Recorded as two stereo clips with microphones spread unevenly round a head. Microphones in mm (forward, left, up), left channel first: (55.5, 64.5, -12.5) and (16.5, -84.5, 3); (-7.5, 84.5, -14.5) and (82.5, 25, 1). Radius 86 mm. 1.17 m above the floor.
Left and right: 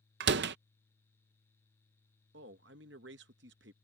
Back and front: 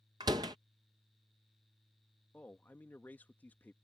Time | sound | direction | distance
0.2 | a door slam | 100° right | ?
2.3 | a man speaking | 135° right | ?